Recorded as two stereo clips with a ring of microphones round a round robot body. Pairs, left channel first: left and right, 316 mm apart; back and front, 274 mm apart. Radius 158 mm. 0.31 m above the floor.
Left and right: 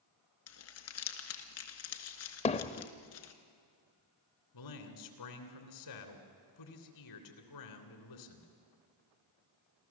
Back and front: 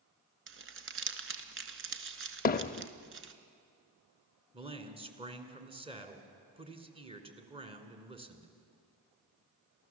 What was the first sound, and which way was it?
Crumpling, 45° left.